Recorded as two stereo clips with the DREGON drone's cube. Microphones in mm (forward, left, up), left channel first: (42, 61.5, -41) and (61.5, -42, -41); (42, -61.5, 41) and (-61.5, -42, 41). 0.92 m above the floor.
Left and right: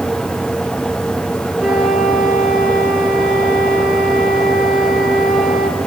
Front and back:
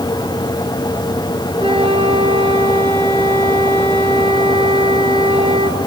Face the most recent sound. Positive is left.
turn(degrees=-165)